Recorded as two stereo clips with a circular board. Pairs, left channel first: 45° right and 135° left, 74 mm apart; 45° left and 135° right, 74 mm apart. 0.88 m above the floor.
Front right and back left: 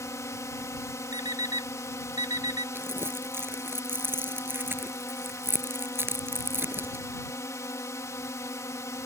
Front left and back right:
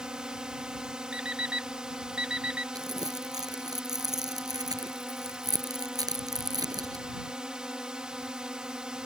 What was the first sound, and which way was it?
A drone, 60° right.